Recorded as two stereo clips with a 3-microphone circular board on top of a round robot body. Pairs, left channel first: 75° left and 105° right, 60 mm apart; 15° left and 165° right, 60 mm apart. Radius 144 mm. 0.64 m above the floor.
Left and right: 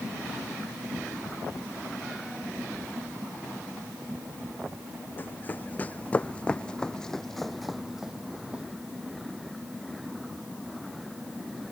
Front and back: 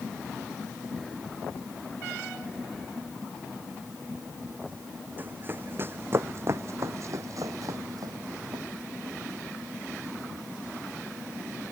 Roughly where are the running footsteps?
Behind left.